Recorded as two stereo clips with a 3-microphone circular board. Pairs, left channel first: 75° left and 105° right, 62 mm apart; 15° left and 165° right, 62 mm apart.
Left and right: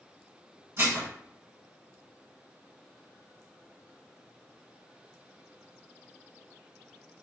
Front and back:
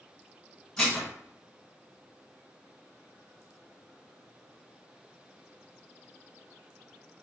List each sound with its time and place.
0.8 s dishes clattering: 65° right, 1.7 m